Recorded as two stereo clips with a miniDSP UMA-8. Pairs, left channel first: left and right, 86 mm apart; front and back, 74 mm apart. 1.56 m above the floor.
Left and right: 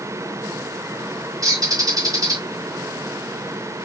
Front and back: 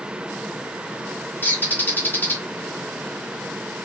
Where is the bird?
55° right, 1.5 m.